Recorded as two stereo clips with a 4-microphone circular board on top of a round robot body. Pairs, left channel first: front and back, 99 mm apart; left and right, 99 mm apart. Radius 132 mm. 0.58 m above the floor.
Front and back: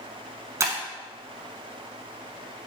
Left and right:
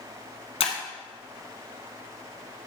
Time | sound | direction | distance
0.6 | breaking glass | 120° left | 0.9 m